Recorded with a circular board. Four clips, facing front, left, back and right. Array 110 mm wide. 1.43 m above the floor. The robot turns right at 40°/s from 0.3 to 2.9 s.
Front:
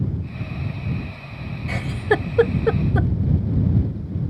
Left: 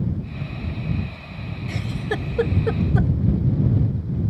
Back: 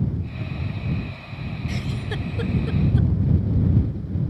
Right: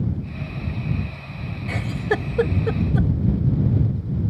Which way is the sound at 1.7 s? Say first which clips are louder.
Right 4 dB, front 12 dB; 35° right.